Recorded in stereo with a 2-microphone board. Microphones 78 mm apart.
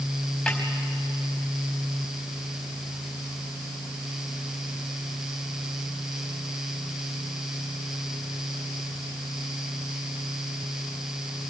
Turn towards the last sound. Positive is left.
turn(degrees=10)  # may be behind; listen again after turning